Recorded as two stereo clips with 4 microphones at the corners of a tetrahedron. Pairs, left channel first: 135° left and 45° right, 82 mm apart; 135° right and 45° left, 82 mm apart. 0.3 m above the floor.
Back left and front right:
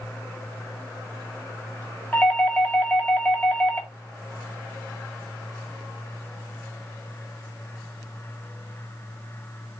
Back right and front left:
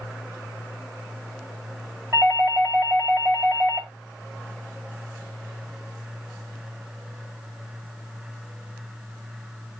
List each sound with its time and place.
2.1 s a doorbell: 70° left, 1.8 m